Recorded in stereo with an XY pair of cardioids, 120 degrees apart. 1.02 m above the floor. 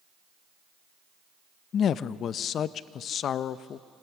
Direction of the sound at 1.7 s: 55° left.